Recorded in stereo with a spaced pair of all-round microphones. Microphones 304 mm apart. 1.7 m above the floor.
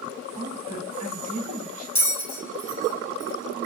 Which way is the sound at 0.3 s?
75° right (ahead or behind).